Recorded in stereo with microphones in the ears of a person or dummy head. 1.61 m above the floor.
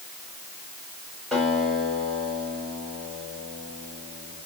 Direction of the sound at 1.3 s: Centre (ahead or behind).